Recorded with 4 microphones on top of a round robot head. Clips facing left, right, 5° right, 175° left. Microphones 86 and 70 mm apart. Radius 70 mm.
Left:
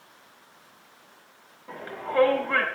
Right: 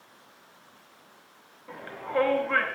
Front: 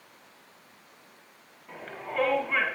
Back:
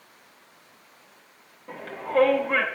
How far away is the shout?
About 8.5 m.